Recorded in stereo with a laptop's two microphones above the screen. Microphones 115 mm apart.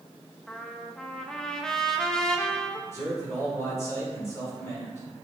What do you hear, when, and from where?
0.5 s a trumpet: 5° left (ahead or behind), 0.5 m
2.9 s a man speaking: 25° left (ahead or behind), 3 m